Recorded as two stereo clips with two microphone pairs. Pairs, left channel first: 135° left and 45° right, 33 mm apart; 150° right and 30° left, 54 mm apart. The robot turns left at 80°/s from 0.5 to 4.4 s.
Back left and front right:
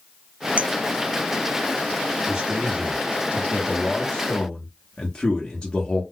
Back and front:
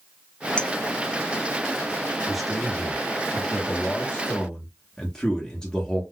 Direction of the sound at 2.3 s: 40° right.